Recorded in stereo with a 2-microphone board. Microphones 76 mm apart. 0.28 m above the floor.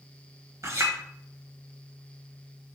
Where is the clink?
45° right (ahead or behind), 1.2 m.